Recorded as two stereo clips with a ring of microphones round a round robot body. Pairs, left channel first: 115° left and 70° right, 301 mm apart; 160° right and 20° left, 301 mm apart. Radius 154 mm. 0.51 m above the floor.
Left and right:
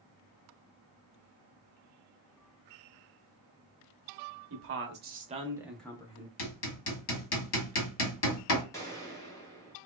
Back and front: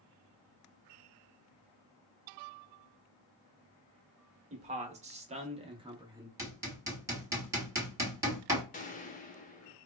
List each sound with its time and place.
4.5 s a man speaking: 40° right, 0.9 m; by 6.3 s 90° left, 0.7 m
6.4 s hammering: 100° left, 1.1 m
8.7 s a gunshot: straight behind, 0.8 m